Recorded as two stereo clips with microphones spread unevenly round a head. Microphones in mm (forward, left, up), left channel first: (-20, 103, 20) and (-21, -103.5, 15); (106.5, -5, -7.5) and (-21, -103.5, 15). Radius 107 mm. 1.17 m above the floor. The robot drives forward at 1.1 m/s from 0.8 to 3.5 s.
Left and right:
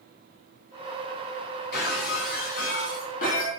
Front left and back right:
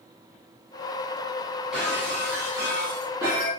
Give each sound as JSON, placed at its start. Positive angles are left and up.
{"t": 1.7, "sound": "breaking glass", "azimuth_deg": 130, "distance_m": 6.0}